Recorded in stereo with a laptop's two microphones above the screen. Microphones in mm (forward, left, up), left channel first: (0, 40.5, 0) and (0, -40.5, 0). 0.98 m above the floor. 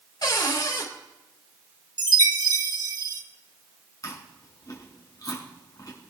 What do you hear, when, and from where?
0.2 s a cupboard door: 60° left (ahead or behind), 3.5 m
2.0 s a chime: 55° right (ahead or behind), 1.2 m
4.0 s chewing: 50° left (ahead or behind), 5.5 m